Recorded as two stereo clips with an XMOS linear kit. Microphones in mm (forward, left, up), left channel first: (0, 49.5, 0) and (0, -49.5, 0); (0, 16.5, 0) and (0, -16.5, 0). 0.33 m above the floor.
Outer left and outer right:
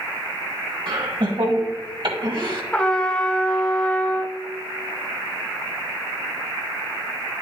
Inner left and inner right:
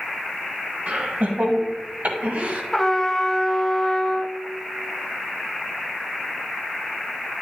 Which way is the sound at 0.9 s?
60° right (ahead or behind).